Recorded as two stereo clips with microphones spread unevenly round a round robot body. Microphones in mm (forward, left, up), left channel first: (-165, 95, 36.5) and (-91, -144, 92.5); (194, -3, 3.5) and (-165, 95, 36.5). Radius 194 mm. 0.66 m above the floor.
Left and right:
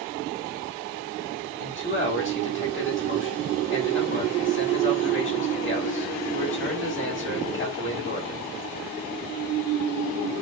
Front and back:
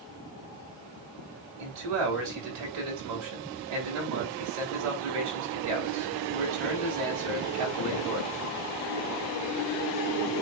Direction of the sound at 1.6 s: 145° left.